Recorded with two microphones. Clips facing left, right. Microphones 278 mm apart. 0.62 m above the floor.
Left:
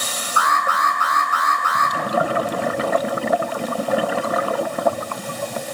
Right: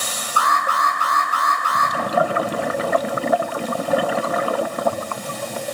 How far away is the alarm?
About 8 m.